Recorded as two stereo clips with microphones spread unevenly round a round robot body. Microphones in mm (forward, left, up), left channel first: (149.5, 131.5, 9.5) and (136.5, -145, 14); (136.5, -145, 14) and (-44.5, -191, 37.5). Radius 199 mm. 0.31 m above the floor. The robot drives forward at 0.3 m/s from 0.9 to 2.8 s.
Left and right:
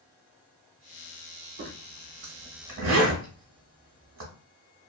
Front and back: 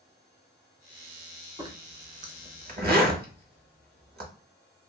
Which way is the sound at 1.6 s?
95° right.